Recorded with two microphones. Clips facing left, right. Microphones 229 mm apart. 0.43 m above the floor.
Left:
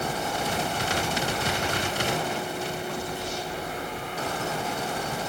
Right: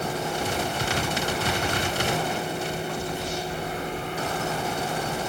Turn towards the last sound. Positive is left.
No sound to turn to.